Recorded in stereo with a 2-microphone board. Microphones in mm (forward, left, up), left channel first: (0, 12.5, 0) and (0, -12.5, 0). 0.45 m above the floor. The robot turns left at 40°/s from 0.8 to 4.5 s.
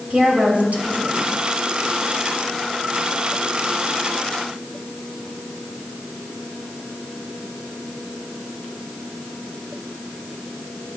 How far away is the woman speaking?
About 2.5 m.